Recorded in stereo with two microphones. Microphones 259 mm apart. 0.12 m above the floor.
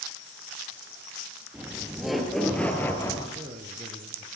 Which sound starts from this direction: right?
A man speaking, at 3.4 s.